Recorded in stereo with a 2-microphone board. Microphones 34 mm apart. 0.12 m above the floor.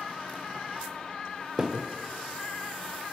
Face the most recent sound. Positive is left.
turn(degrees=-20)  # may be behind; listen again after turning